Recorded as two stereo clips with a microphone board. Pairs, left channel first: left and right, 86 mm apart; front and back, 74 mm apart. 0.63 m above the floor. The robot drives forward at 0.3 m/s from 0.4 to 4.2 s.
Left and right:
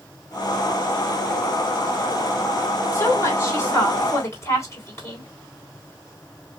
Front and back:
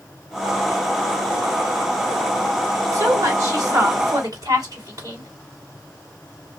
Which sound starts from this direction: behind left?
A woman speaking, at 2.9 s.